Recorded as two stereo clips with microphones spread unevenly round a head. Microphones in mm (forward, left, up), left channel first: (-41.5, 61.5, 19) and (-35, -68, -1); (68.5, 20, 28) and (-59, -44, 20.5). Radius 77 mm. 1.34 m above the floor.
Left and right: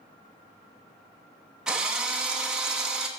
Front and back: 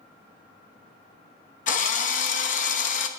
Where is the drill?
5° left, 0.9 m.